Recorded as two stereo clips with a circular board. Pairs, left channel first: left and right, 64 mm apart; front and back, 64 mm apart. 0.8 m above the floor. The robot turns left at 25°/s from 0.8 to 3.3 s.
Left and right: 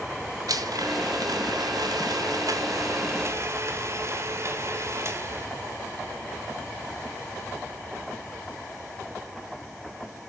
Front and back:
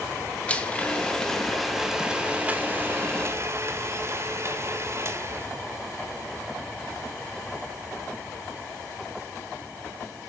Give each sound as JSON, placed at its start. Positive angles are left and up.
{"t": 0.5, "sound": "a blender", "azimuth_deg": -70, "distance_m": 1.4}